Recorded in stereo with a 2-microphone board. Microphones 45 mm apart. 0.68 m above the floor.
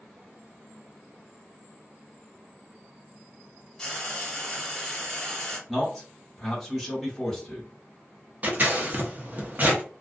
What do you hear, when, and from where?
3.8 s frying: 10° left (ahead or behind), 1.6 m
5.7 s a man speaking: centre (ahead or behind), 1.2 m
8.4 s scissors: 40° right (ahead or behind), 0.8 m